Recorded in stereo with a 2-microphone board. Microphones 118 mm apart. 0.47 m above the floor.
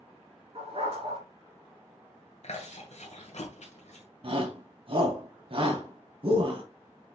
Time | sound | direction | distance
0.6 | a dog barking | 55° right (ahead or behind) | 3 m
2.4 | chewing | 70° left (ahead or behind) | 2.5 m
4.2 | a shout | 50° right (ahead or behind) | 3 m